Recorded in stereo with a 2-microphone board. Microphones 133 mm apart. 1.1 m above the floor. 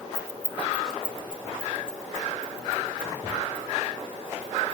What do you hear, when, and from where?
0.1 s keys jangling: 45° left (ahead or behind), 1.1 m; by 4.8 s 85° left, 5.5 m